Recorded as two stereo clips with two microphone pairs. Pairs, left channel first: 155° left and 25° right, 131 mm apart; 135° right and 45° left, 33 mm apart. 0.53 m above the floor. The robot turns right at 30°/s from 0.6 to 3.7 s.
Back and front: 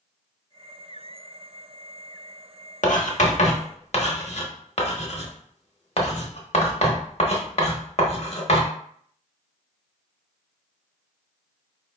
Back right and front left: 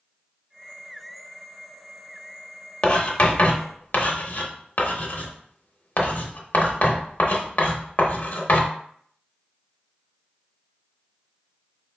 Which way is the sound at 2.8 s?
165° left.